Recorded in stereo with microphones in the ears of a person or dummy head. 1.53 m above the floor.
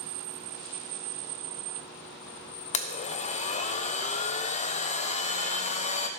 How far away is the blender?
About 0.6 m.